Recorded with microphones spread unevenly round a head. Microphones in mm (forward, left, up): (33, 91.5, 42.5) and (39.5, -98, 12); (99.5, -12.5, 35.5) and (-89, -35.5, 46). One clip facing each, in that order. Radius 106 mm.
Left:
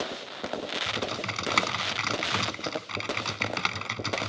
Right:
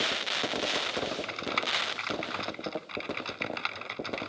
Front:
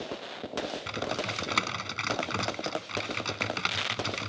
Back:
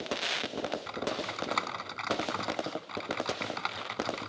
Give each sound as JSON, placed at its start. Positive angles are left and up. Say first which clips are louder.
{"t": 0.9, "sound": "typing on a keyboard", "louder": "even, front 1 dB", "azimuth_deg": 65}